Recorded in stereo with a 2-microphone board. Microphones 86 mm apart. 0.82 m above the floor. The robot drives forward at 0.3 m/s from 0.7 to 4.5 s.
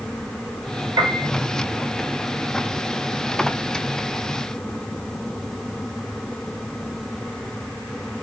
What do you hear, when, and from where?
1.0 s a piano: 45° right (ahead or behind), 2.5 m; by 1.3 s 50° right (ahead or behind), 2.5 m